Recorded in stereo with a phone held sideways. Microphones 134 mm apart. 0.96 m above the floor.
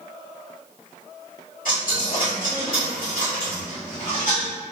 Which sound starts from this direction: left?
A dropped coin, at 1.6 s.